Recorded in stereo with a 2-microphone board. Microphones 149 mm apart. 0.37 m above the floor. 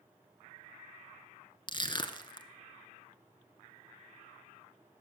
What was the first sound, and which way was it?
Crushing, 35° left (ahead or behind).